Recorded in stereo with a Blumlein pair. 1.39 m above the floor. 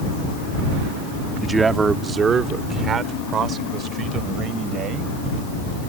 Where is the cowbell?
I don't hear a cowbell.